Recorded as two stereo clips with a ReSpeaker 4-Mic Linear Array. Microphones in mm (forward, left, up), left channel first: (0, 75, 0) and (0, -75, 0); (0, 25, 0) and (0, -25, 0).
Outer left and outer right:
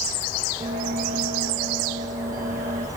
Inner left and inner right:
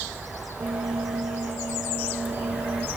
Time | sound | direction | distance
0.6 | a bell | 65° right (ahead or behind) | 4.5 m